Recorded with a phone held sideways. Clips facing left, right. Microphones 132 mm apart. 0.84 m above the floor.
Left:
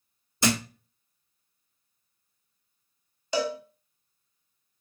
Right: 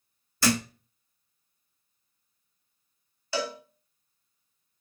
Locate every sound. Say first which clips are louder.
0.4 s a thud: right 1 dB; 20° left (ahead or behind), 0.7 m
3.3 s a cowbell: left 4 dB; 20° left (ahead or behind), 1.1 m